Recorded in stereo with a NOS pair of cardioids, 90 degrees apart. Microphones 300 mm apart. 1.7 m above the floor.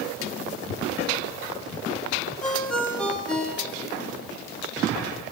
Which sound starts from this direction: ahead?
A ringtone, at 2.4 s.